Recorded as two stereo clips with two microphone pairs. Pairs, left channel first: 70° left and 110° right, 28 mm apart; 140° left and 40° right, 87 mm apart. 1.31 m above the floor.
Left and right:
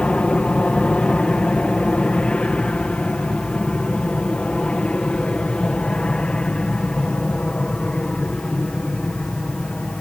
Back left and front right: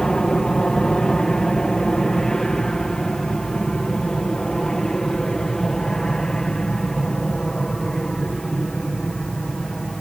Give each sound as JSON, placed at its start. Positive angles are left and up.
{"t": 0.0, "sound": "an aircraft", "azimuth_deg": 60}